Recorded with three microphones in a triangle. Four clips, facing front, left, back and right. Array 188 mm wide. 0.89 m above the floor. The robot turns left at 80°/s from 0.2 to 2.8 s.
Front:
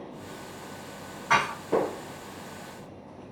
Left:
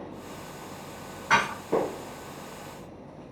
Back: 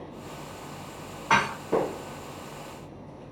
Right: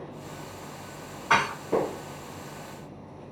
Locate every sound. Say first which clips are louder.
1.3 s dishes clattering: even, back 1 dB; 165° left, 0.9 m; by 1.5 s 150° left, 0.9 m